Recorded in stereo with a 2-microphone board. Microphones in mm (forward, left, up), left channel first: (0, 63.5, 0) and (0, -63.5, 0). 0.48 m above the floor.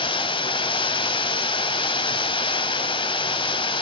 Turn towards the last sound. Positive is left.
turn(degrees=40)  # may be behind; listen again after turning